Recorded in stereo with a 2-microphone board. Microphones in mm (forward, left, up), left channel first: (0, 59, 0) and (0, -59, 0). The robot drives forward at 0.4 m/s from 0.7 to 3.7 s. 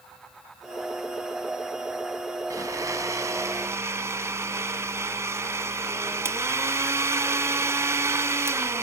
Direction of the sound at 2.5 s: 25° right (ahead or behind).